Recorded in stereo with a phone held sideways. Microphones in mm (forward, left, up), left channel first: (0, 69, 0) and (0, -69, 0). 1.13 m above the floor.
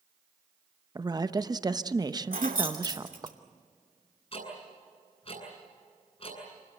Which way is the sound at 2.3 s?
85° right.